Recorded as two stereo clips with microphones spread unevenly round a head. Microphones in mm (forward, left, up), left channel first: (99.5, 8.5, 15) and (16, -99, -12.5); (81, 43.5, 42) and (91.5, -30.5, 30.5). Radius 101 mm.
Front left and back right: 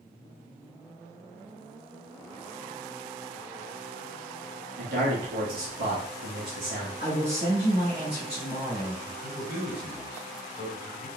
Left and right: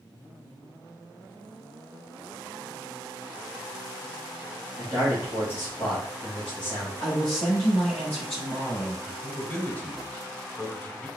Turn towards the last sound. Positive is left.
turn(degrees=25)